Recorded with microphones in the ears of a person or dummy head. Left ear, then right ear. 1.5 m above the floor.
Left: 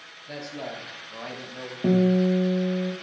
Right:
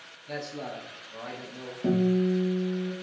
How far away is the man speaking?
About 0.9 m.